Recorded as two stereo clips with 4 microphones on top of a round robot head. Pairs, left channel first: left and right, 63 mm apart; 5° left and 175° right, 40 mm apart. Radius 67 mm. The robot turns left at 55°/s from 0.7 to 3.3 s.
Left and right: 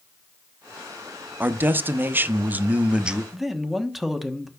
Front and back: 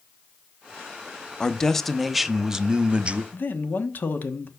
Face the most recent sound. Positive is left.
turn(degrees=-5)